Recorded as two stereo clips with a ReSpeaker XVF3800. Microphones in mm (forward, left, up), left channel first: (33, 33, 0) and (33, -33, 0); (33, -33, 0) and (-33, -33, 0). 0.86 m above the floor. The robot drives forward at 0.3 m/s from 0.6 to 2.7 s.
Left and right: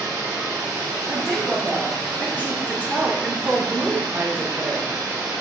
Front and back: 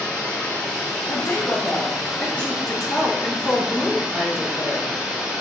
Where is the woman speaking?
20° right, 0.7 m; by 4.9 s 75° right, 0.5 m.